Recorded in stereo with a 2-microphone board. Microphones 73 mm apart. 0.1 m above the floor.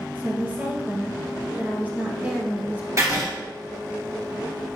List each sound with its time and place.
0.1 s a woman speaking: 25° right (ahead or behind), 1.5 m
3.0 s writing: 40° right (ahead or behind), 1.9 m